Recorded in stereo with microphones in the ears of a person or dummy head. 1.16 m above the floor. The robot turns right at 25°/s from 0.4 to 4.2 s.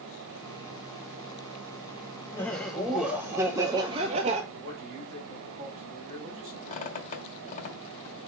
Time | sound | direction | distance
2.3 | laughter | 170° left | 0.8 m
4.5 | a man speaking | 45° right (ahead or behind) | 3 m
6.7 | a squeak | 45° left (ahead or behind) | 1.4 m